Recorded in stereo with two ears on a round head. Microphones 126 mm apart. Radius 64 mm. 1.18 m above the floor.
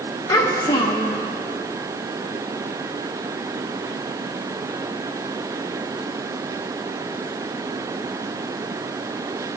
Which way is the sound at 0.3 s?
25° left (ahead or behind).